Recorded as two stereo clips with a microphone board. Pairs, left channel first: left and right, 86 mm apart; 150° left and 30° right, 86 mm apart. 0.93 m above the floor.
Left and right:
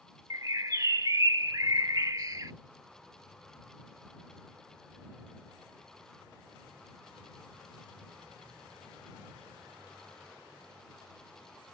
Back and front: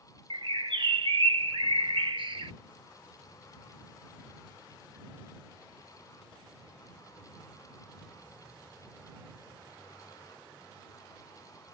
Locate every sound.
0.3 s a bird: 45° right